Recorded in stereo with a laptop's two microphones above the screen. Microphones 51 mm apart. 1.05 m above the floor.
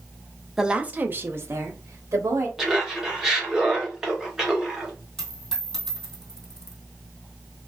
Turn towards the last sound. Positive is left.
turn(degrees=10)  # may be behind; listen again after turning